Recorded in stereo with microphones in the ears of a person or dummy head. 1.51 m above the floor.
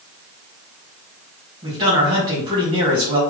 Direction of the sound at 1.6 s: 25° right (ahead or behind).